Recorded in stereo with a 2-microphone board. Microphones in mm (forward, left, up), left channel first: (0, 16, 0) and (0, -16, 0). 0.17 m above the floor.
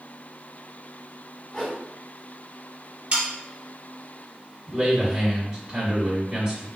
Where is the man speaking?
15° right (ahead or behind), 1.5 m.